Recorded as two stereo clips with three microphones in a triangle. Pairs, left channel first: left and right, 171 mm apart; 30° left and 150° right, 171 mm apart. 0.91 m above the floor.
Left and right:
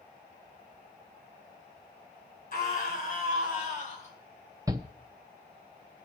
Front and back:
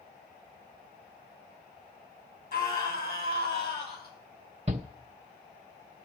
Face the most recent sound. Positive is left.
turn(degrees=-150)